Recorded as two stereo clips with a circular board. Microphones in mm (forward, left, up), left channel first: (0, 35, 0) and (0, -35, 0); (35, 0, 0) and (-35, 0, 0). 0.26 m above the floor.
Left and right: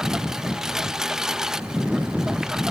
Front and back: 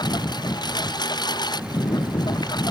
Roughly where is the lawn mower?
Ahead.